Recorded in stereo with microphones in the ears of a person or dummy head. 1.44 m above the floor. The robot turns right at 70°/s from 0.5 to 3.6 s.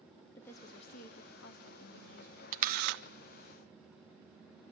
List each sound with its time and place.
0.3 s a woman speaking: 15° left, 3 m; by 2.4 s 150° left, 3 m
2.5 s a camera shutter: 135° right, 0.6 m; by 3.0 s 105° right, 0.6 m